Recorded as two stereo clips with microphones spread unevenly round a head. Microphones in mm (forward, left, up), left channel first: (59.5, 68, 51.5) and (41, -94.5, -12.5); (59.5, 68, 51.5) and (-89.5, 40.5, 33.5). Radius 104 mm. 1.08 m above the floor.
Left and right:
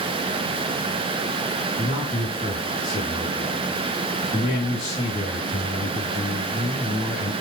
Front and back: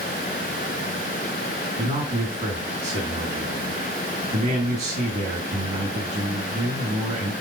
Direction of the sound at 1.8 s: 145° left.